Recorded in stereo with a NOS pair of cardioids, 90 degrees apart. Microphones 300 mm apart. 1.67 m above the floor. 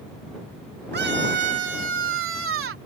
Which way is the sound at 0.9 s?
35° right.